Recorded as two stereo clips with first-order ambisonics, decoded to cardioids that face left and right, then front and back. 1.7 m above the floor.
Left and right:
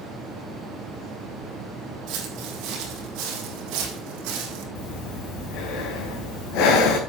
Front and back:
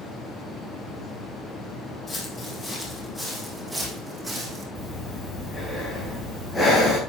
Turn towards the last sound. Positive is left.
turn(degrees=80)